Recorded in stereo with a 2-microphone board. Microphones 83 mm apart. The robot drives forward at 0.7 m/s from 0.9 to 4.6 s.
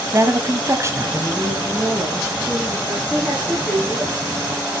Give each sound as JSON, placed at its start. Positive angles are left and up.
{"t": 0.1, "sound": "a woman speaking", "side_deg": -35, "distance_m": 1.4}
{"t": 1.7, "sound": "a woman speaking", "side_deg": -5, "distance_m": 4.0}
{"t": 3.1, "sound": "a woman speaking", "side_deg": -5, "distance_m": 6.5}